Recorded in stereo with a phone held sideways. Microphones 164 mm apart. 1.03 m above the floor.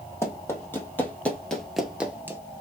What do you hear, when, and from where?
0.2 s running footsteps: 15° left (ahead or behind), 2 m; by 2.4 s 15° right (ahead or behind), 1.0 m